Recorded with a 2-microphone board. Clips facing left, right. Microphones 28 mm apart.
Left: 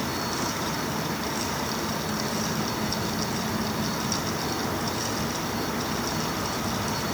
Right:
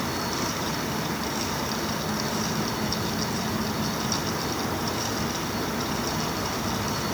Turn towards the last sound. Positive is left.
No sound to turn to.